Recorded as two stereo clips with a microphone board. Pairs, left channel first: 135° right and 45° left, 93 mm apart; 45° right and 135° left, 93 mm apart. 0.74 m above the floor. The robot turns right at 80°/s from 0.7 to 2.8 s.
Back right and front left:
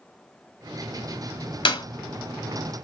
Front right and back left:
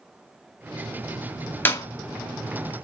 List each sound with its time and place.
1.6 s a clap: 115° right, 1.8 m; by 1.9 s 100° right, 1.8 m